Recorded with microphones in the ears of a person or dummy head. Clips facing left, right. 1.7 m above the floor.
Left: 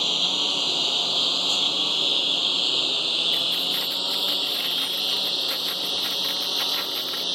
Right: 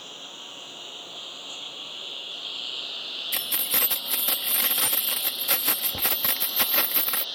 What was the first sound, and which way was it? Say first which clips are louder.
A lawn mower: left 13 dB; 80° left.